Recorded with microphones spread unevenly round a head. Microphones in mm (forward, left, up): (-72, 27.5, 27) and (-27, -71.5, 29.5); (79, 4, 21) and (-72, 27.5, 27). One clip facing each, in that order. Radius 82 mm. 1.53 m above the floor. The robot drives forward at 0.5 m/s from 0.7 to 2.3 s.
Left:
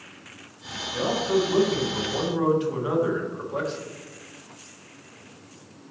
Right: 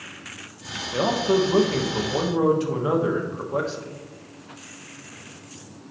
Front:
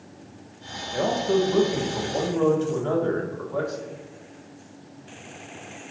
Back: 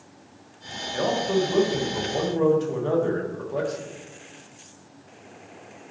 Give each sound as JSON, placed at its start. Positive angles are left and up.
{"t": 0.9, "sound": "a man speaking", "azimuth_deg": -80, "distance_m": 1.1}